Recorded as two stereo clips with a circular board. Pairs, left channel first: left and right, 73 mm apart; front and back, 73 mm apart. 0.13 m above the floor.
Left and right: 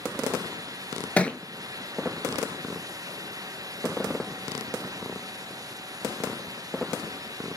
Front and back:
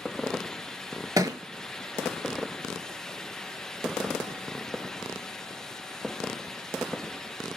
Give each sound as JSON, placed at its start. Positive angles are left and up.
{"t": 1.2, "sound": "a thud", "azimuth_deg": 160, "distance_m": 0.6}